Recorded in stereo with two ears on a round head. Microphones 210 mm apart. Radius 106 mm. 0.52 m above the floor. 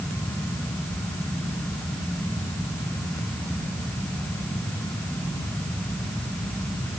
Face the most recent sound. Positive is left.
No sound to turn to.